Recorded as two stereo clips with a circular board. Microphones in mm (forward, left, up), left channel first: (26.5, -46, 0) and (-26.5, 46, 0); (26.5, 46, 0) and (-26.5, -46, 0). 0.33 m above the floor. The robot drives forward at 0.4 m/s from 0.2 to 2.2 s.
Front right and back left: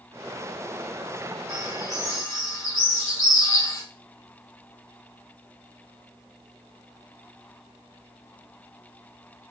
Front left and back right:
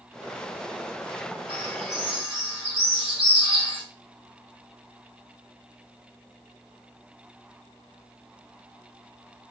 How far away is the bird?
About 1.9 m.